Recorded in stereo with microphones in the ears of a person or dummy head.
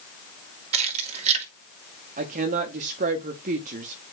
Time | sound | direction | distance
0.7 | keys jangling | 35° right (ahead or behind) | 1.8 m
2.2 | a woman speaking | 45° right (ahead or behind) | 1.0 m